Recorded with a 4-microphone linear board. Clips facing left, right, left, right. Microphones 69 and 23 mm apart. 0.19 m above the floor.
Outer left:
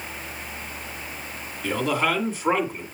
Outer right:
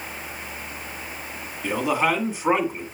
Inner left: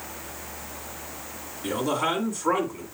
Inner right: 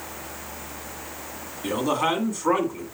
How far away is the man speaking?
About 1.7 m.